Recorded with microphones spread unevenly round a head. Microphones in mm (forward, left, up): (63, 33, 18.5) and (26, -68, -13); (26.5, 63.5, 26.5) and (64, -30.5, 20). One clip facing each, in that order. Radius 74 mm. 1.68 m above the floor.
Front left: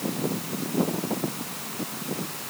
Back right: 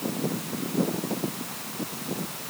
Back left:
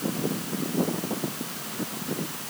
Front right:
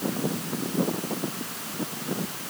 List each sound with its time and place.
Only background noise.